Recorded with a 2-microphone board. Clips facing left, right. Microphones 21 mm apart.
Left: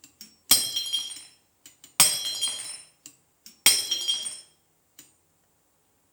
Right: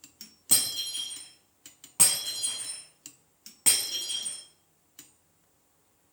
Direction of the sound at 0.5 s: 70° left (ahead or behind).